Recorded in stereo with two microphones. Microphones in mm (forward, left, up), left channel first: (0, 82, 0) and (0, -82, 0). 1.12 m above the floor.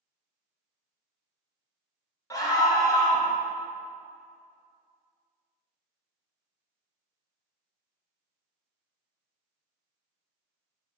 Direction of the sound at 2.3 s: 20° left (ahead or behind).